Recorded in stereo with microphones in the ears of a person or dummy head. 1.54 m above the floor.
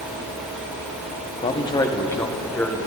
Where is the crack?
No crack in this recording.